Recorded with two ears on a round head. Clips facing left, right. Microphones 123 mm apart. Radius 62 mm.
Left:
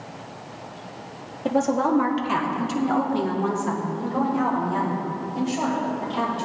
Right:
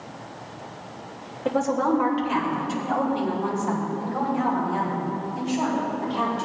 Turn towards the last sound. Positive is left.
turn(degrees=55)  # may be behind; listen again after turning